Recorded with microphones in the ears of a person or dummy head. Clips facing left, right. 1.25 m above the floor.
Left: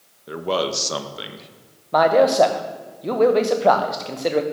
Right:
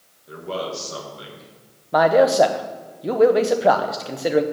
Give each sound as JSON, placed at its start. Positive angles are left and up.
{"t": 0.3, "sound": "a man speaking", "side_deg": 70, "distance_m": 1.2}
{"t": 1.9, "sound": "a man speaking", "side_deg": -5, "distance_m": 0.8}